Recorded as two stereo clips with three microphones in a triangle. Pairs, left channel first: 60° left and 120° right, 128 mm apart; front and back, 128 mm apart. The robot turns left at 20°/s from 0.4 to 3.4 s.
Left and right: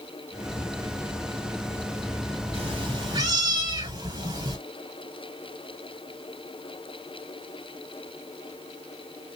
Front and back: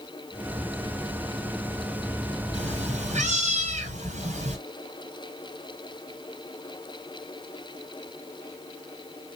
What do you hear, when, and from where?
2.5 s a cat meowing: 155° right, 1.7 m; by 4.6 s 175° right, 1.7 m